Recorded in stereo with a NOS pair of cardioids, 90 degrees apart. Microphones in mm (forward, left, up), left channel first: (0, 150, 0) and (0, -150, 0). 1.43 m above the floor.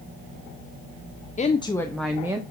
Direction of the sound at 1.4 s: 25° left.